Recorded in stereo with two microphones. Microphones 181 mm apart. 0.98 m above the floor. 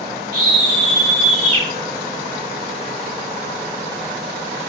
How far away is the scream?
About 6 m.